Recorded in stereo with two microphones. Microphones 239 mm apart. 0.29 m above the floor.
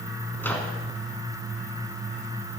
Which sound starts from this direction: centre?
A microwave, at 0.4 s.